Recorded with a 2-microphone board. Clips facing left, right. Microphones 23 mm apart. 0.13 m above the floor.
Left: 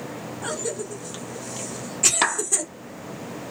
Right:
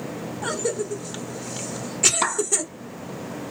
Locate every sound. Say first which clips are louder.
0.4 s a cough: right 4 dB; 10° right (ahead or behind), 1.4 m
2.2 s a clap: left 1 dB; 40° left (ahead or behind), 3 m